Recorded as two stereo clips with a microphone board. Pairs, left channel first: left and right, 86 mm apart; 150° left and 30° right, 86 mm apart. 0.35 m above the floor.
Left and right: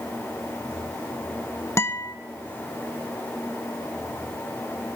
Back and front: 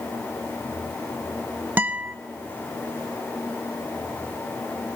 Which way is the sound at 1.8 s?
35° left.